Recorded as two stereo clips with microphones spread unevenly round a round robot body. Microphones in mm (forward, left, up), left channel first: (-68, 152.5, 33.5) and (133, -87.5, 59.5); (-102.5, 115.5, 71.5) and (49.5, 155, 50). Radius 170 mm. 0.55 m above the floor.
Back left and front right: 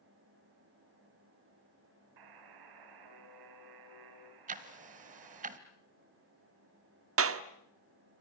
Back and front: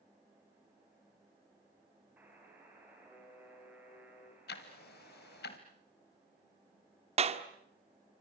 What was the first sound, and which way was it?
A buzzer, 70° right.